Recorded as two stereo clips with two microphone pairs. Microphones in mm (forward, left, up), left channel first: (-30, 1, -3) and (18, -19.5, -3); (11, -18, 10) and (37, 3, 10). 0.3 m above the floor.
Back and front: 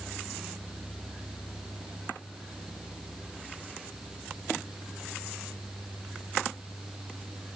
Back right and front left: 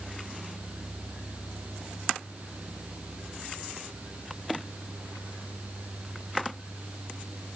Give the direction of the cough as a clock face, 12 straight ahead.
No cough in this recording.